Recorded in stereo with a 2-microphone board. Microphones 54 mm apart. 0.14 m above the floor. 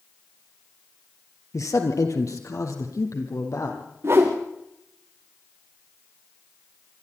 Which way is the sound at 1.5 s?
65° left (ahead or behind).